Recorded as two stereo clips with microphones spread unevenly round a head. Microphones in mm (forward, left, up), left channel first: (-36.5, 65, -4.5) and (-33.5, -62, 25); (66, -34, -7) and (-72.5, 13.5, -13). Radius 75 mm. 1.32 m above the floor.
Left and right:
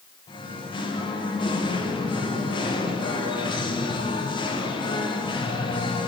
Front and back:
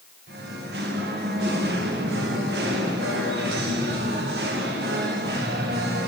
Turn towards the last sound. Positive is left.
turn(degrees=135)